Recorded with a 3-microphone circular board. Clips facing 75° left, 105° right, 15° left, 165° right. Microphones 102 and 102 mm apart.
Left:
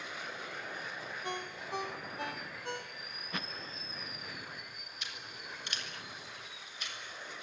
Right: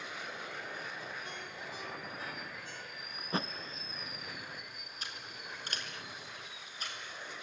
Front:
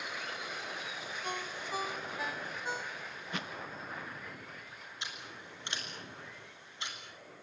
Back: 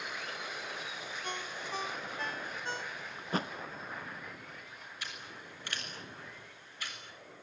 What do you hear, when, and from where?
1.2 s a ringtone: 95° left, 1.9 m
3.2 s a thud: 140° right, 0.6 m
5.0 s scissors: 55° right, 6.5 m